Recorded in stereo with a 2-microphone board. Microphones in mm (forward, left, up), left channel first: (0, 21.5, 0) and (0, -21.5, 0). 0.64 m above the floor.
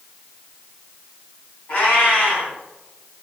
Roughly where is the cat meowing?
Left.